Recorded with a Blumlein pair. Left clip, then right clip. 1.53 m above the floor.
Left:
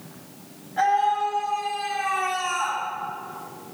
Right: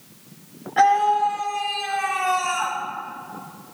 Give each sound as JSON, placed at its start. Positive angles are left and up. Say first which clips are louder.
{"t": 0.8, "sound": "a scream", "louder": "right 4 dB", "azimuth_deg": -30, "distance_m": 5.5}